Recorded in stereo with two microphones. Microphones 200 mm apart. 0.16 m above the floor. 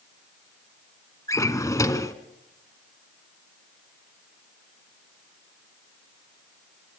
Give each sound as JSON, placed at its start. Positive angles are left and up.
{"t": 1.3, "sound": "a drawer", "side_deg": 15, "distance_m": 1.1}